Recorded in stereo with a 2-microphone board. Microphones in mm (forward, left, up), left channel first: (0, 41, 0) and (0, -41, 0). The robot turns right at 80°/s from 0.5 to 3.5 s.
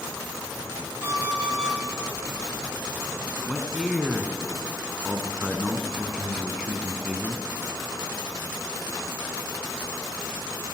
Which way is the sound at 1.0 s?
150° right.